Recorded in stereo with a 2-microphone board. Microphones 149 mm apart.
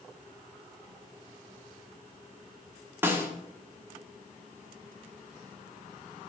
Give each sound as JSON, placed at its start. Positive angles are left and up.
{"t": 3.0, "sound": "a snare drum", "side_deg": -15, "distance_m": 1.0}